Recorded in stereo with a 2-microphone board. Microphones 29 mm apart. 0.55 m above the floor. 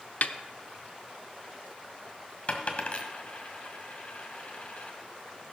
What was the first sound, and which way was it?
A snare drum, 60° left (ahead or behind).